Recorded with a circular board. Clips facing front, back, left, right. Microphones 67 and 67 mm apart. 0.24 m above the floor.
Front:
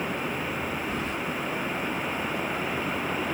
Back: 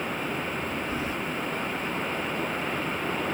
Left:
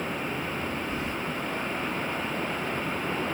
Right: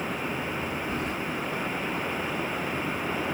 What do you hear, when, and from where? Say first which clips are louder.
0.9 s keys jangling: even, right 1 dB; 100° right, 3 m